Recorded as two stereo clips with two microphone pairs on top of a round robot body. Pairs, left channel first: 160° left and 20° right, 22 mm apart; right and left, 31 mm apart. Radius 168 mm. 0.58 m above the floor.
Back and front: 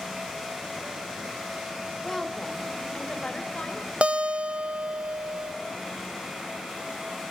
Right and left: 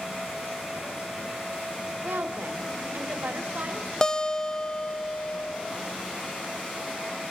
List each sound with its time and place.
2.0 s a woman speaking: 85° left, 2.5 m; by 3.9 s 125° left, 3.5 m
4.0 s a guitar: 30° right, 0.8 m